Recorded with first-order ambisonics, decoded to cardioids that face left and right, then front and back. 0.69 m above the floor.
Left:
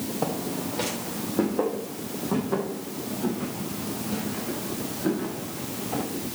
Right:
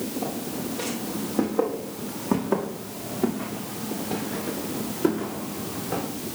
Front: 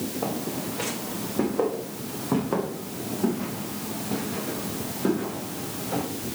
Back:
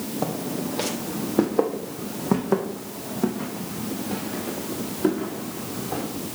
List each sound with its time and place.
0.2 s footsteps: 145° left, 2 m; by 6.0 s 125° right, 7 m